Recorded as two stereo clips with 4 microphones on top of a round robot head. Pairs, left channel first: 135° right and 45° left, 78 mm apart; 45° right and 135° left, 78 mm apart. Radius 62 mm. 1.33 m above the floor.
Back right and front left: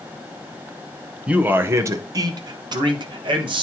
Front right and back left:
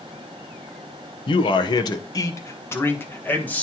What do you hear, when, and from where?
1.3 s a man speaking: 30° right, 0.7 m; by 3.6 s 25° left, 1.5 m